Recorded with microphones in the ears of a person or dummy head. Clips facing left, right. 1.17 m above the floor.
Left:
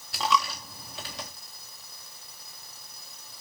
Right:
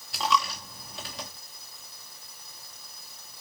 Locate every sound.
0.1 s a dropped coin: centre (ahead or behind), 0.6 m